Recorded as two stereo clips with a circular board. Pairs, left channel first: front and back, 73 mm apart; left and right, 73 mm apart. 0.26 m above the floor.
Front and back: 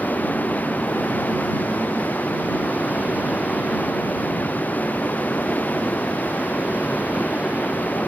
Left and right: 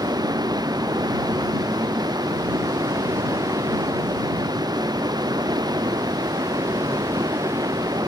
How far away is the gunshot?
No gunshot in this recording.